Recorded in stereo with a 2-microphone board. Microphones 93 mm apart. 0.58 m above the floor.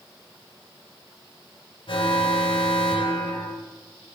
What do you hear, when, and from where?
1.9 s an alarm: 65° left (ahead or behind), 2 m